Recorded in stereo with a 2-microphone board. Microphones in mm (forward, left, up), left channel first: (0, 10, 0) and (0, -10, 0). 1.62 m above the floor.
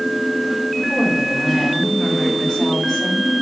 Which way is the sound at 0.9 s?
10° left (ahead or behind).